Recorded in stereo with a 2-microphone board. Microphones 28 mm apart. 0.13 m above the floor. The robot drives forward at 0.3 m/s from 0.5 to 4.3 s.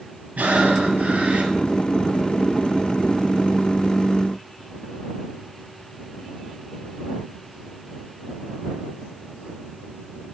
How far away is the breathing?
About 2.5 m.